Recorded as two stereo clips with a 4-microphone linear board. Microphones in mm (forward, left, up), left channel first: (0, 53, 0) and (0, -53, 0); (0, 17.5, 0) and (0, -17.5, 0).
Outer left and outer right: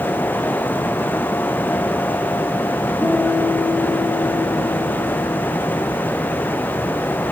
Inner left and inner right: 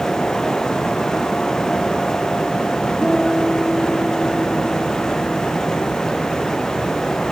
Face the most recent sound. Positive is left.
turn(degrees=-10)  # may be behind; listen again after turning